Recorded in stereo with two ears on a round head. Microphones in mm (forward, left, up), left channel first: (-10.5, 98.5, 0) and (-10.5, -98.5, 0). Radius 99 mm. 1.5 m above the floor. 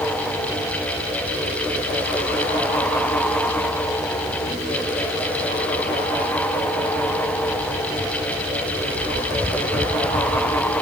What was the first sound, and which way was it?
Only background noise.